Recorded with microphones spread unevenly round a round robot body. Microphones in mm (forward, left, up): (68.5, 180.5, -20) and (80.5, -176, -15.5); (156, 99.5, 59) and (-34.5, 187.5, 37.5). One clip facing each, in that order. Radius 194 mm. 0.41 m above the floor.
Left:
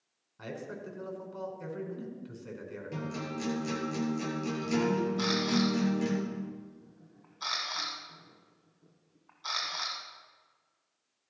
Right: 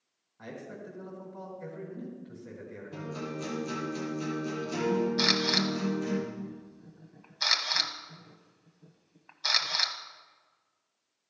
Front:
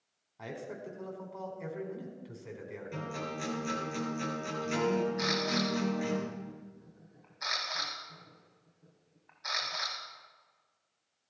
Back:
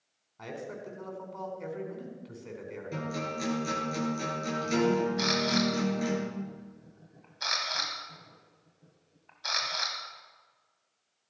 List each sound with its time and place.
0.4 s a man speaking: 60° left, 4.5 m
2.9 s a guitar: 110° left, 7 m
5.2 s a camera shutter: 140° right, 1.1 m